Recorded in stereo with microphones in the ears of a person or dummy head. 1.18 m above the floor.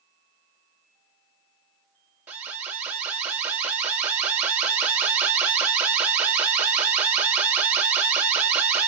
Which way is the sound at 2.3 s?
5° right (ahead or behind).